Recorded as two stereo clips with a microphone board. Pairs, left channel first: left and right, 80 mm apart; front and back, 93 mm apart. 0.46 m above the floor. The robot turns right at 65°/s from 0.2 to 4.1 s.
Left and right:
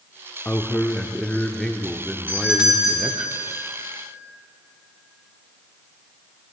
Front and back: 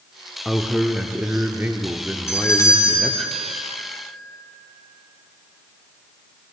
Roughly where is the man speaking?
Left.